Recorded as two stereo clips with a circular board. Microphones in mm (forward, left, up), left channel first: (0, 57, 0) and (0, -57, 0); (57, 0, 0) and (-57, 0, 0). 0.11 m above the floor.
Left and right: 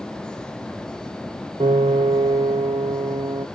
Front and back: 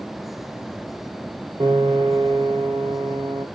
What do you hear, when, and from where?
1.6 s a piano: 130° right, 0.6 m